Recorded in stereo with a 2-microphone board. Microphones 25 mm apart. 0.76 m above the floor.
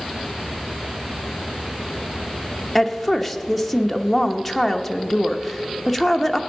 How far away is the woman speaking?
About 0.8 m.